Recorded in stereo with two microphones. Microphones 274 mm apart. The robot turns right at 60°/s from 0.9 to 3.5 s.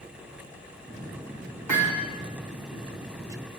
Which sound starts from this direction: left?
Hammering, at 1.7 s.